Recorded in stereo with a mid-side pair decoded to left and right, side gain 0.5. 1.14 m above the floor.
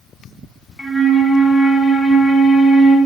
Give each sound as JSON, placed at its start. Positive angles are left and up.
{"t": 0.8, "sound": "a flute", "azimuth_deg": 15, "distance_m": 0.9}